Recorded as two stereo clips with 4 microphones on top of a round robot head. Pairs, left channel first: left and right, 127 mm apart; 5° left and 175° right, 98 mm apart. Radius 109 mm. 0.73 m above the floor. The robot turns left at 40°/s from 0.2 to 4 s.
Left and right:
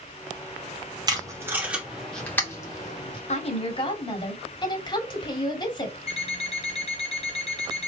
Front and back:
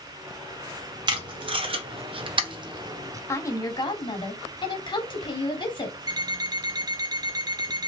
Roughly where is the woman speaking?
Ahead left.